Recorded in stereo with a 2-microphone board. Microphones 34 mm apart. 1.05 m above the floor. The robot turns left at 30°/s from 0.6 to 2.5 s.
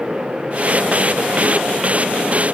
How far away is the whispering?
No whispering in this recording.